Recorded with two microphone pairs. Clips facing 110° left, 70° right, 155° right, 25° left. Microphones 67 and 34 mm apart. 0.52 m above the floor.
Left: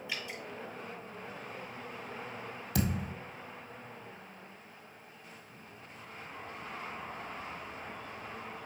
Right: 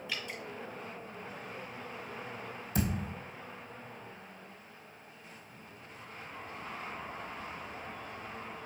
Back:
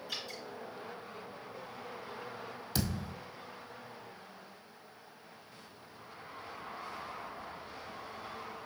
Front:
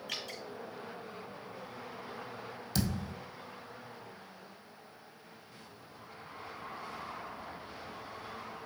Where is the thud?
130° left, 1.6 m.